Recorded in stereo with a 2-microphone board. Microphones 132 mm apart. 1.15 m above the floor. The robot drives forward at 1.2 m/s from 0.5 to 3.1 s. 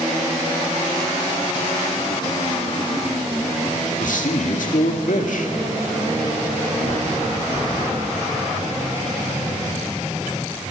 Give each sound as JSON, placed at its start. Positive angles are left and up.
{"t": 4.0, "sound": "a man speaking", "side_deg": 80, "distance_m": 2.0}